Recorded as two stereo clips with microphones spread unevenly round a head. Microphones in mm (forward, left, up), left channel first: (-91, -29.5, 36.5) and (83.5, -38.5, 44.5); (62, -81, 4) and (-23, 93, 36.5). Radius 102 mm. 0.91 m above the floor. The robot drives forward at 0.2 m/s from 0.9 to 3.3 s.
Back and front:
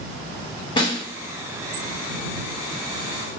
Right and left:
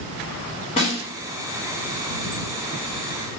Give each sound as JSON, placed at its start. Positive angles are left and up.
{"t": 0.8, "sound": "a snare drum", "azimuth_deg": -120, "distance_m": 1.8}